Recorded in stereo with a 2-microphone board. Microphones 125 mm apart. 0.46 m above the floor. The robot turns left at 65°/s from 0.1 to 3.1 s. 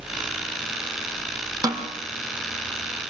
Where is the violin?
I don't hear a violin.